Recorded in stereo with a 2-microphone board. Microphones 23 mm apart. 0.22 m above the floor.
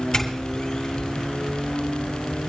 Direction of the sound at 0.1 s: 25° left (ahead or behind).